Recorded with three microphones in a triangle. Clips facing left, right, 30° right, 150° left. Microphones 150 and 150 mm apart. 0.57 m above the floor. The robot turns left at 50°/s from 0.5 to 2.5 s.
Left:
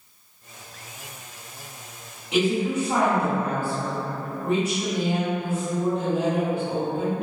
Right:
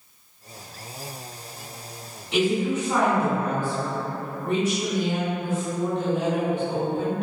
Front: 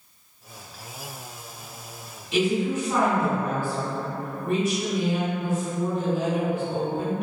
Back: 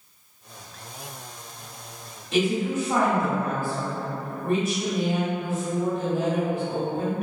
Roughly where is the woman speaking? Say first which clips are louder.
Even, even; behind left.